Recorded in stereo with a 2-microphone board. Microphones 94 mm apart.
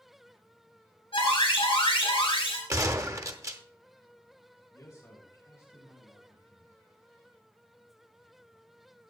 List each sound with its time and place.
1.1 s an alarm: 75° left (ahead or behind), 6 m
2.7 s a gunshot: 35° right (ahead or behind), 0.8 m
4.7 s a man speaking: 30° left (ahead or behind), 7 m